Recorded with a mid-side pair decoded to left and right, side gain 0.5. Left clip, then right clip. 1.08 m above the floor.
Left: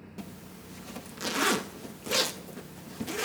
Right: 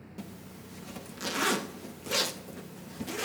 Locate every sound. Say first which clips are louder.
0.2 s a zipper: left 1 dB; 15° left, 0.6 m